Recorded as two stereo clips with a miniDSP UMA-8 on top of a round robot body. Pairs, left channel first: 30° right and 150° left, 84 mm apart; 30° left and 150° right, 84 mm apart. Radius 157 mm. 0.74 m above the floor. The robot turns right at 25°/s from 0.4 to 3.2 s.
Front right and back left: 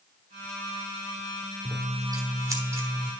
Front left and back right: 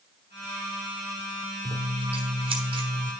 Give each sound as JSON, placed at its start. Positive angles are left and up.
{"t": 1.6, "sound": "scissors", "azimuth_deg": 180, "distance_m": 1.3}